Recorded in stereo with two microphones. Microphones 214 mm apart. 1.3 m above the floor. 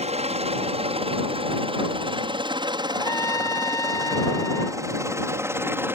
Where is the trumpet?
15° left (ahead or behind).